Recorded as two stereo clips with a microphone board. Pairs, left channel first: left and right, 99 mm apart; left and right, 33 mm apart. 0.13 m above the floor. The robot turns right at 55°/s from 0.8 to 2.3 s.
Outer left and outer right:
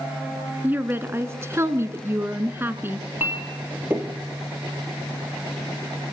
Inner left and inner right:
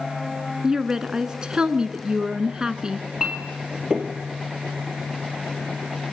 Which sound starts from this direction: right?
A clink, at 3.2 s.